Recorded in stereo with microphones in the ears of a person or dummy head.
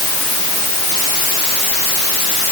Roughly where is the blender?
I don't hear a blender.